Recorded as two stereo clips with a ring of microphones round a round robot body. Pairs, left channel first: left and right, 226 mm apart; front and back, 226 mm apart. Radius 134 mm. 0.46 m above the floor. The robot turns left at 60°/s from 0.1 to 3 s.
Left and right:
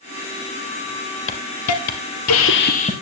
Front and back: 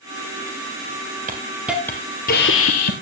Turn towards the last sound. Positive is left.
turn(degrees=15)